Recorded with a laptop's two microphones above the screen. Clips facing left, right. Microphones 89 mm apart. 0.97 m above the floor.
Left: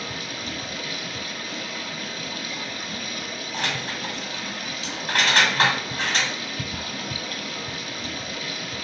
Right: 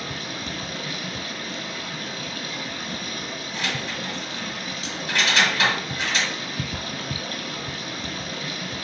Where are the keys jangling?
45° left (ahead or behind), 1.9 m.